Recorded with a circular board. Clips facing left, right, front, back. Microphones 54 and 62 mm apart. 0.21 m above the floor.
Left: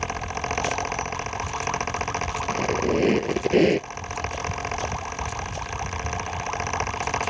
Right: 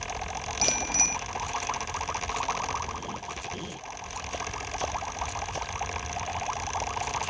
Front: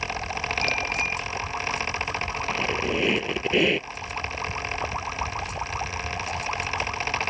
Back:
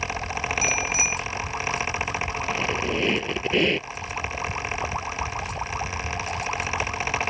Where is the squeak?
85° left.